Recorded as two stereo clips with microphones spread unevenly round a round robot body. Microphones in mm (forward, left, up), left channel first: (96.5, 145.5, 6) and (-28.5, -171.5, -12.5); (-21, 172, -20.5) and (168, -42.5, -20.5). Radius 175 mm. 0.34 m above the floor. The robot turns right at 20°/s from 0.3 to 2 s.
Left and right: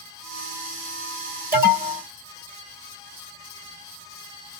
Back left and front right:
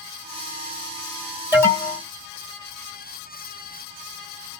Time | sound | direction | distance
1.5 | an alarm | 125° right | 1.6 m